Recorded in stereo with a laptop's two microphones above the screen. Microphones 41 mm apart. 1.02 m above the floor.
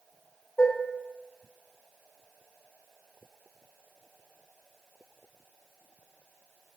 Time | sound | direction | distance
0.6 | dishes clattering | 65° left (ahead or behind) | 1.1 m